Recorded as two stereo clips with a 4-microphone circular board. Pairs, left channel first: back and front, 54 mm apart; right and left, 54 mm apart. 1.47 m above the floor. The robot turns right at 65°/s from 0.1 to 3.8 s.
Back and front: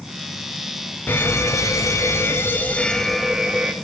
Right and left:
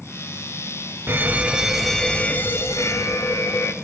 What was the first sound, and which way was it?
An alarm, 130° left.